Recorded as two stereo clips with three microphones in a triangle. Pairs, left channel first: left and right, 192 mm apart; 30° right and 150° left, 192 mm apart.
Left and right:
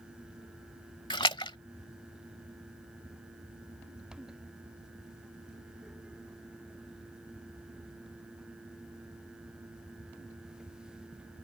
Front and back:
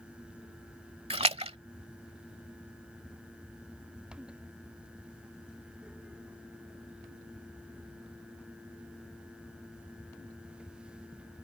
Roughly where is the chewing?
I don't hear chewing.